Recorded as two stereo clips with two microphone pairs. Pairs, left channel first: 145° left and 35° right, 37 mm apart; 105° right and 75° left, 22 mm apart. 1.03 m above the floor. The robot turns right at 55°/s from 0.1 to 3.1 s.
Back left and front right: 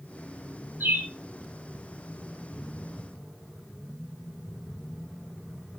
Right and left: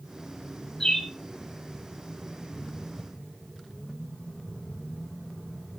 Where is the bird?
40° right, 2 m; by 1.1 s 25° right, 2 m.